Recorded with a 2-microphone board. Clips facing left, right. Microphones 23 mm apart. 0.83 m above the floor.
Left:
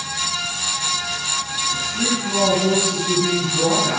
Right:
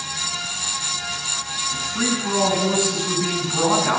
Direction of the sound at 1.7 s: 65° right (ahead or behind).